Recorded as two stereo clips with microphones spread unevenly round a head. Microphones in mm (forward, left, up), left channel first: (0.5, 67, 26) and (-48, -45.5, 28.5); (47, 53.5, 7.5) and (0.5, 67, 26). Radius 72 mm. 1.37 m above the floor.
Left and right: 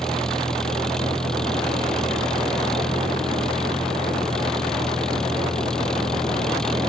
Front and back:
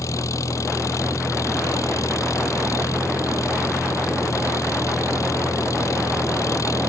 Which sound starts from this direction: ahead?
An engine running, at 0.0 s.